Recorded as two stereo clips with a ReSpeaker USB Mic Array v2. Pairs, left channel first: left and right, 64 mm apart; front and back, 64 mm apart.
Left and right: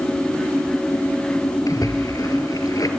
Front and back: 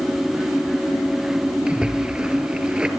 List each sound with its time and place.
1.7 s a splash: 105° left, 2 m